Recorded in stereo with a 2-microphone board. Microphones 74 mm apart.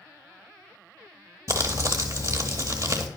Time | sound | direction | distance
1.5 | crumpling | 40° right (ahead or behind) | 0.8 m